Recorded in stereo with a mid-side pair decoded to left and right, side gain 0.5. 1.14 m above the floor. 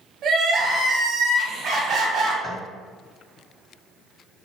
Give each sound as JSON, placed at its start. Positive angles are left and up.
{"t": 0.2, "sound": "crying", "azimuth_deg": -60, "distance_m": 1.0}
{"t": 2.4, "sound": "tapping", "azimuth_deg": 20, "distance_m": 1.1}